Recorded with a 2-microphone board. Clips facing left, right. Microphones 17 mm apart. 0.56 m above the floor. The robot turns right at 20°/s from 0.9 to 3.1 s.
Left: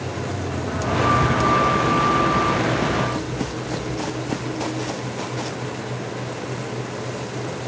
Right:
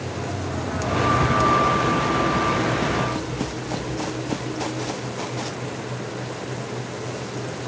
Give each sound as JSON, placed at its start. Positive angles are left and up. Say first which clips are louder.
{"t": 1.2, "sound": "a cupboard door", "louder": "even", "side_deg": -45, "distance_m": 3.0}